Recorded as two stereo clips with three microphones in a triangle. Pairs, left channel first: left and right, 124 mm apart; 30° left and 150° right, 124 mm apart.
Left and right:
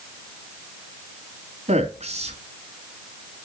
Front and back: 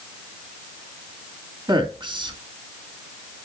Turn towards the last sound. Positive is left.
turn(degrees=-105)